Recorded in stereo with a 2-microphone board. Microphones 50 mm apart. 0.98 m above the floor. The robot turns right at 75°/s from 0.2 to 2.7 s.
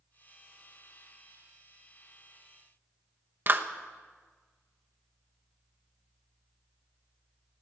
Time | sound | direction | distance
3.5 | a clap | 45° right (ahead or behind) | 0.9 m